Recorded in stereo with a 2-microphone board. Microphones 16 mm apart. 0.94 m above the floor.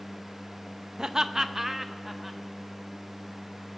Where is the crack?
I don't hear a crack.